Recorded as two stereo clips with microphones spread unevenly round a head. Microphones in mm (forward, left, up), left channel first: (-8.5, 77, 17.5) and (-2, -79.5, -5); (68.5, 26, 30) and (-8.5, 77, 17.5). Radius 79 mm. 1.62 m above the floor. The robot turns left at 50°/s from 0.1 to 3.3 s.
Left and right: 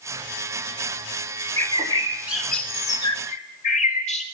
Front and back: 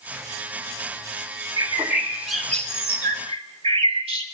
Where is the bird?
135° right, 3 m; by 4.2 s 135° left, 3 m.